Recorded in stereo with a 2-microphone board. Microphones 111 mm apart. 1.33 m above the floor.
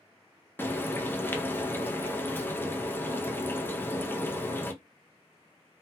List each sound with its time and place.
0.6 s frying: 20° left (ahead or behind), 0.6 m